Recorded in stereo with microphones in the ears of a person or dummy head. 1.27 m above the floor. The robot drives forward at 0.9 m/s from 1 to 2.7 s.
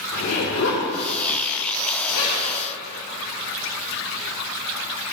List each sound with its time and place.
0.1 s a zipper: 70° left (ahead or behind), 3.5 m; by 2.5 s 85° left, 3 m